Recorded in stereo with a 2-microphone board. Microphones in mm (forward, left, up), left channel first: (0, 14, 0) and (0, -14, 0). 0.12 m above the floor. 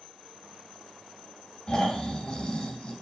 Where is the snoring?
30° left (ahead or behind), 2 m.